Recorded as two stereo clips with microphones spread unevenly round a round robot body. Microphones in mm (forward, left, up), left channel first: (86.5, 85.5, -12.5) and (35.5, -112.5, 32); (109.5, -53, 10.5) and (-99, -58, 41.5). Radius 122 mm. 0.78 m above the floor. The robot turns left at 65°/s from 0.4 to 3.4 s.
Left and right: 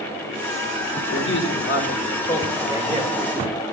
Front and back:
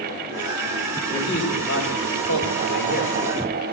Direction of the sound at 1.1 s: 80° left.